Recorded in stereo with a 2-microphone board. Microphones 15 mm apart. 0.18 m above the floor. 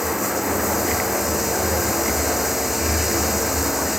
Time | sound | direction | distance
0.0 | running water | 10° right (ahead or behind) | ?